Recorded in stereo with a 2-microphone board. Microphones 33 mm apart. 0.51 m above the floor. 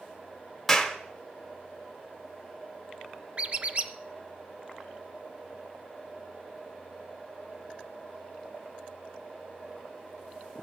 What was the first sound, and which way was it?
A clap, 10° left (ahead or behind).